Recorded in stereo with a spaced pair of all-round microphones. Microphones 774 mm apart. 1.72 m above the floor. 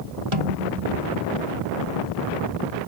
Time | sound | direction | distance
0.3 | a snare drum | 40° right (ahead or behind) | ?